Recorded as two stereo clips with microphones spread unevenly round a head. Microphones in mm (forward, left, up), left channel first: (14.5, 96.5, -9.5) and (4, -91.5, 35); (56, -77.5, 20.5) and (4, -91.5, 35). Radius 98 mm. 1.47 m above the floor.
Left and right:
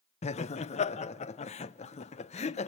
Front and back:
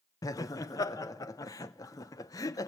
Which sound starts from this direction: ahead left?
Laughter, at 0.2 s.